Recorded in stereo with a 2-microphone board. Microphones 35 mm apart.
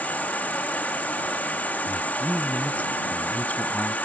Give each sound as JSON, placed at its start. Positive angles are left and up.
{"t": 0.0, "sound": "an insect", "side_deg": 50}
{"t": 1.9, "sound": "a man speaking", "side_deg": 45}